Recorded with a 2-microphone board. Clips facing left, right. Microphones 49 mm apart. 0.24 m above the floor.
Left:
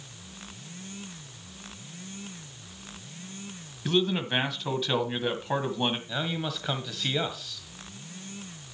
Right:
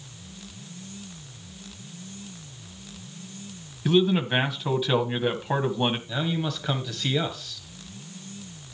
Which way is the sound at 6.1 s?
5° left (ahead or behind).